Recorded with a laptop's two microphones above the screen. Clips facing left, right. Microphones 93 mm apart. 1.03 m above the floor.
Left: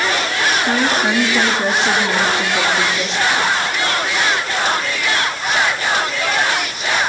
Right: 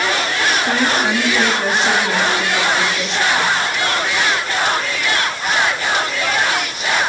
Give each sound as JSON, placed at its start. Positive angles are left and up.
{"t": 0.7, "sound": "a woman speaking", "side_deg": 10, "distance_m": 2.5}